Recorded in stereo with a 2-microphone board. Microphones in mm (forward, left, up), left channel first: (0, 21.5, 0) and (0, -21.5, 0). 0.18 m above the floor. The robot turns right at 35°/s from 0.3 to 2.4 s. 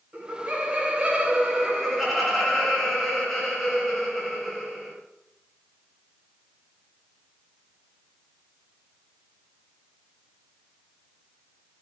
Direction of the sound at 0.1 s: 65° right.